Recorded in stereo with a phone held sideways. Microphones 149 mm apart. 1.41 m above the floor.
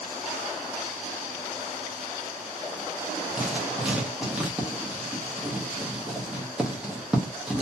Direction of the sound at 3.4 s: 5° right (ahead or behind).